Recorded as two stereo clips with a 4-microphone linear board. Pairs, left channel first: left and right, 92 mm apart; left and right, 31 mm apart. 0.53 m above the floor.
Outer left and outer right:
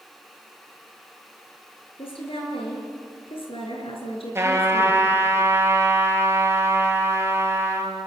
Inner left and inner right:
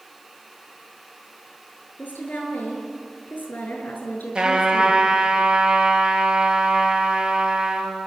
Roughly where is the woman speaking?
Left.